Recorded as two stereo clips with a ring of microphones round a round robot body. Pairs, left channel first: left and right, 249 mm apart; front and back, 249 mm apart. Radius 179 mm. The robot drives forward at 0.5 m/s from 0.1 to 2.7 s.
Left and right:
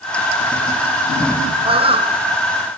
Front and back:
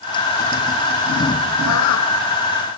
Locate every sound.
1.6 s a bird: 20° right